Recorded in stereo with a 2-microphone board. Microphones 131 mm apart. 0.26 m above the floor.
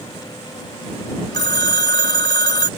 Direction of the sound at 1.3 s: 30° left (ahead or behind).